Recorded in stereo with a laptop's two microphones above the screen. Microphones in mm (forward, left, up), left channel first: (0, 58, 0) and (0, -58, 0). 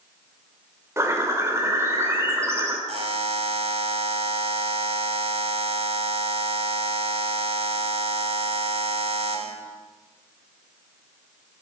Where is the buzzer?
60° right (ahead or behind), 1.5 m.